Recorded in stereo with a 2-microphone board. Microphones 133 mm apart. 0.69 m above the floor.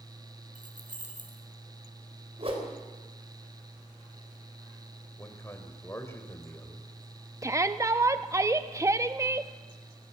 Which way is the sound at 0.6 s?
75° right (ahead or behind).